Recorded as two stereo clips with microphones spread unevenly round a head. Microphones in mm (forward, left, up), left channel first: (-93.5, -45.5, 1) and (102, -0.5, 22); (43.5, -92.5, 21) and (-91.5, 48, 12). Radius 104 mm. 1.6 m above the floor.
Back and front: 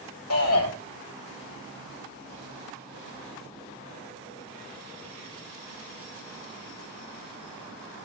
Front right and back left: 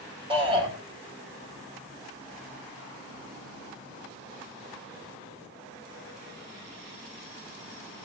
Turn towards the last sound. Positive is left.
turn(degrees=-160)